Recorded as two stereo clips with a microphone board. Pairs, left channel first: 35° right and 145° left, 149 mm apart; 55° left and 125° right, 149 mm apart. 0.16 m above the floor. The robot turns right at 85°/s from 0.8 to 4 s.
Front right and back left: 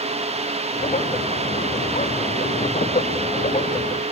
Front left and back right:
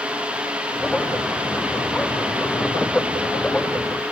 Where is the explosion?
I don't hear an explosion.